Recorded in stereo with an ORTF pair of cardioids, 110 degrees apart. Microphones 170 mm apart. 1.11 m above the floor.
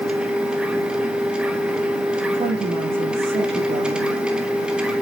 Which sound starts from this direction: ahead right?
A woman speaking, at 2.3 s.